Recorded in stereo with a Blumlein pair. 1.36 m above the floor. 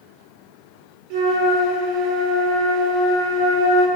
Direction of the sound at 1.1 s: 45° right.